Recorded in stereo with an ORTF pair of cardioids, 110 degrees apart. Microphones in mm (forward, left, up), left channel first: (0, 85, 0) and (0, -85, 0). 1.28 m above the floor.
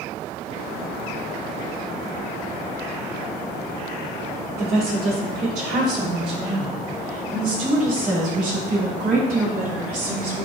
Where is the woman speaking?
65° right, 3.5 m; by 10.5 s 55° right, 6.5 m.